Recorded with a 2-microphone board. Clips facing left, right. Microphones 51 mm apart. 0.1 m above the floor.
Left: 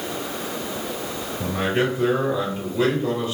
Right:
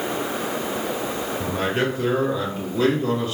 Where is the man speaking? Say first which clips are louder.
Left 2 dB; 10° left (ahead or behind), 1.8 m; by 3.3 s 15° left (ahead or behind), 1.7 m.